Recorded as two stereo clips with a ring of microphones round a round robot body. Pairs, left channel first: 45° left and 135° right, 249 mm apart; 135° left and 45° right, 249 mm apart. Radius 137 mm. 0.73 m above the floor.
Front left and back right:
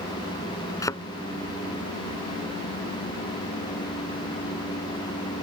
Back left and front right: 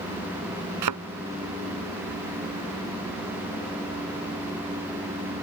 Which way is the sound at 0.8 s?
35° right.